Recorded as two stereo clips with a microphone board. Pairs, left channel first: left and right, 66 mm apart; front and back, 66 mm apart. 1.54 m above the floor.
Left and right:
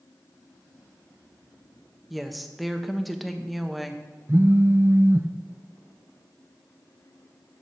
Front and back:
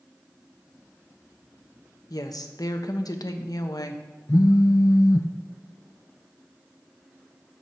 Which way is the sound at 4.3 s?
30° right.